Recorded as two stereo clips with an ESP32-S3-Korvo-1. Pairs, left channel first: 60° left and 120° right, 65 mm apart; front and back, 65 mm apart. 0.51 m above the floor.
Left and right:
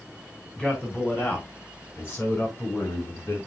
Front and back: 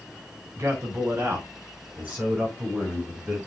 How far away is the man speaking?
About 4.5 m.